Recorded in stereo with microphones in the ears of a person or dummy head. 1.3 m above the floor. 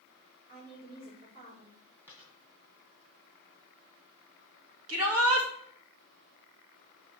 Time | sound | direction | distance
0.5 | a woman speaking | 50° right (ahead or behind) | 3.5 m
2.1 | a dropped coin | 20° right (ahead or behind) | 3 m
4.9 | a shout | 90° right | 1.9 m